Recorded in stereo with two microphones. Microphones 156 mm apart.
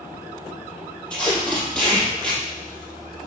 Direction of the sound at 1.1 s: 10° left (ahead or behind).